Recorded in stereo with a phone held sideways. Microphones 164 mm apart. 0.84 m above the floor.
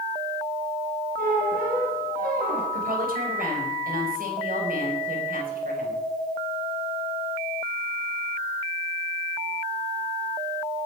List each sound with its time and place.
1.2 s a squeak: 60° right (ahead or behind), 7 m
2.7 s a woman speaking: 60° right (ahead or behind), 5 m